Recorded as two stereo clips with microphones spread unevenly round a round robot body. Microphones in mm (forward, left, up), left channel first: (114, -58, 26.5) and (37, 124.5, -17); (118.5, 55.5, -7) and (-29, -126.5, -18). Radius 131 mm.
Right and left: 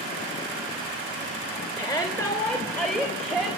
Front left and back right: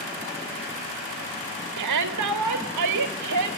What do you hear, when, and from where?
1.8 s a shout: 145° right, 2.5 m; by 3.5 s 160° right, 3.5 m